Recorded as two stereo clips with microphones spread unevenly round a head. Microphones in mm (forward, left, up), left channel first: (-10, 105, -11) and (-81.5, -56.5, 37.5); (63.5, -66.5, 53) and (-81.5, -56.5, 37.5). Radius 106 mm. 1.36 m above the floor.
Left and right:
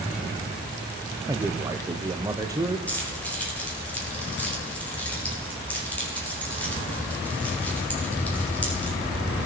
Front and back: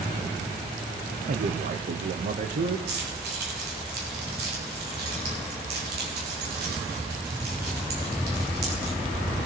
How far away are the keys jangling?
About 3.5 m.